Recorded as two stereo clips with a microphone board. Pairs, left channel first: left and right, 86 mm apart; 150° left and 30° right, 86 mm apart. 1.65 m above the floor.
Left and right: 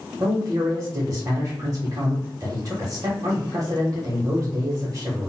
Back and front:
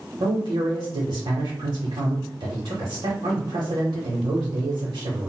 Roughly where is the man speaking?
Ahead right.